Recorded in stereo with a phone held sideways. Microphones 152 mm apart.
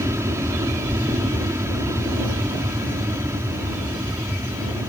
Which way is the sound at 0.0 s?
20° right (ahead or behind).